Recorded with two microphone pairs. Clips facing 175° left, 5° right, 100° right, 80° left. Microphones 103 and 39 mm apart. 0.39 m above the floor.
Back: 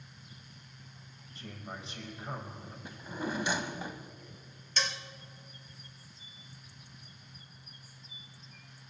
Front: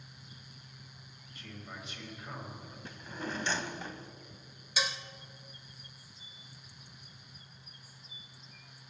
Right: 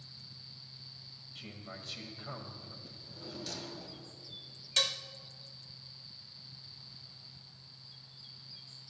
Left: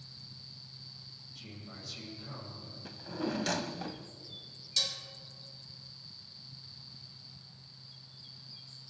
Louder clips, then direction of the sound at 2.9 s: Back 3 dB, left 17 dB; 100° left.